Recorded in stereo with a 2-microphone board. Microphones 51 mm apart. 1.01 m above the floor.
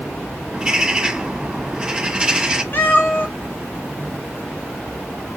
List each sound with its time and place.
0.5 s a bird: 15° right (ahead or behind), 1.6 m
2.7 s a cat meowing: 45° left (ahead or behind), 1.2 m